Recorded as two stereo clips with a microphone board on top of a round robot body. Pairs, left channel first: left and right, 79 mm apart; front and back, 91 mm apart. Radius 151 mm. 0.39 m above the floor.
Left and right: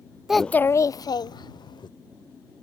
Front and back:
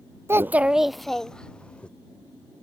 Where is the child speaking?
170° right; by 1.9 s 75° left.